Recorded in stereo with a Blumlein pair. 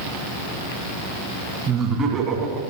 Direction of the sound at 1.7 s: 25° right.